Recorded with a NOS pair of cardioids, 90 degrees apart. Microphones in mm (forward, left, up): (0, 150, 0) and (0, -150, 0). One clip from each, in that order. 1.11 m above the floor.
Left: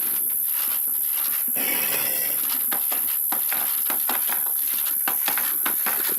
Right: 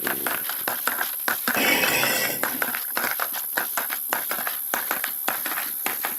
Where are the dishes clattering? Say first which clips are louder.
Right 7 dB; 60° right.